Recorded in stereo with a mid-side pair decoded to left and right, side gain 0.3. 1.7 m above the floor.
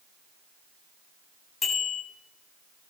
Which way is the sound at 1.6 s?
65° left.